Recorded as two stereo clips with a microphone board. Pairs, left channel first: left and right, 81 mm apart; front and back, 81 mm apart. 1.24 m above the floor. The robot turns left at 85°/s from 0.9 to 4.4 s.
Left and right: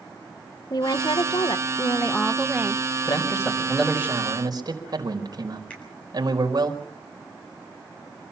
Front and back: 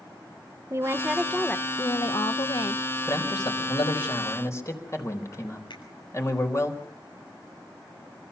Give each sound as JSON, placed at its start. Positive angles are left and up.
{"t": 0.7, "sound": "a woman speaking", "azimuth_deg": 125, "distance_m": 1.0}
{"t": 3.1, "sound": "a man speaking", "azimuth_deg": 60, "distance_m": 4.5}
{"t": 5.7, "sound": "a finger snap", "azimuth_deg": 15, "distance_m": 9.0}